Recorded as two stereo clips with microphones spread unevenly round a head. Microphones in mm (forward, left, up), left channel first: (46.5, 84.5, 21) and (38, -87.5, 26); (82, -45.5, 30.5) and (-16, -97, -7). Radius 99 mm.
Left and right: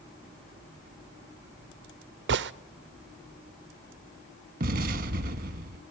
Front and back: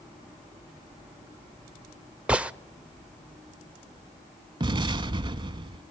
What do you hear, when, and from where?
2.3 s a gunshot: 75° right, 0.7 m
4.6 s an explosion: 95° right, 1.0 m